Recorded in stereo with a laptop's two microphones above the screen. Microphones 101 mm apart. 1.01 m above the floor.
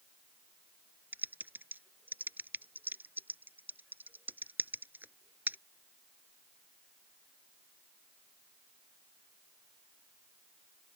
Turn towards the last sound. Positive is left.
turn(degrees=-20)  # may be behind; listen again after turning